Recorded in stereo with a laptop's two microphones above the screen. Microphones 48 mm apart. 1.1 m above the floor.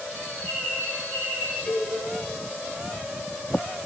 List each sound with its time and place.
0.1 s a bird: 55° left (ahead or behind), 5.5 m
1.7 s a cowbell: 45° left (ahead or behind), 5.5 m